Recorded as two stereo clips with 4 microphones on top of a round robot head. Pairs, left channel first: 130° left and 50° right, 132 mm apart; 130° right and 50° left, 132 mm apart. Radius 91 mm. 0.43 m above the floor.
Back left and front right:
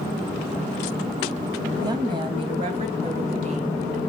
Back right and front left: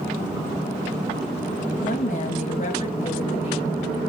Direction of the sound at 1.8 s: 110° right.